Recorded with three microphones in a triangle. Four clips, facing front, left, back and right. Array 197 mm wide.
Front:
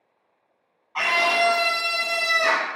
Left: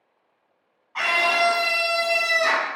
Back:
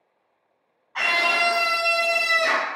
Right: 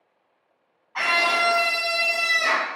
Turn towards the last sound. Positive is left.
turn(degrees=25)